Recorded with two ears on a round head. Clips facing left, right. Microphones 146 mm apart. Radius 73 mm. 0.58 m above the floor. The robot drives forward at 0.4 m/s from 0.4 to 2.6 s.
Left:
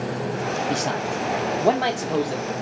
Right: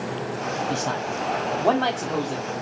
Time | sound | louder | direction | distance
0.7 | a man speaking | left 2 dB | 20° left (ahead or behind) | 0.6 m